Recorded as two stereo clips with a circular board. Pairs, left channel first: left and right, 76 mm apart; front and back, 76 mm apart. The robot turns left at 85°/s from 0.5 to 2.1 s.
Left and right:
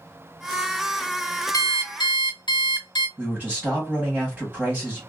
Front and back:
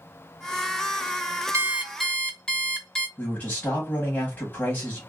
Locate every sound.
1.5 s an alarm clock: 130° left, 0.8 m; by 3.1 s 80° left, 0.8 m
3.2 s a man speaking: 40° right, 1.1 m